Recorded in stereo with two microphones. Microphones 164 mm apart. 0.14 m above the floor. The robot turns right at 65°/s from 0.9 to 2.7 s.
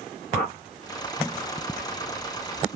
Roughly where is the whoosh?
Left.